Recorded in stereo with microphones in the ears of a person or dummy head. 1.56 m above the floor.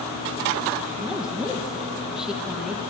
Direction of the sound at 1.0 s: 5° right (ahead or behind).